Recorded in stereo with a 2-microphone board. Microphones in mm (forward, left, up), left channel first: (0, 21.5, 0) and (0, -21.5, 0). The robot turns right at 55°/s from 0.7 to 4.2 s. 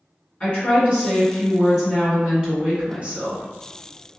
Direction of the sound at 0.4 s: 125° left.